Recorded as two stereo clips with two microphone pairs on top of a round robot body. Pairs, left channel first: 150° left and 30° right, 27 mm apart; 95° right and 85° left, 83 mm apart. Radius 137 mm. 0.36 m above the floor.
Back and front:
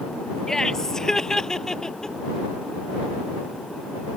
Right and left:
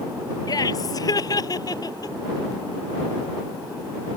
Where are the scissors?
I don't hear scissors.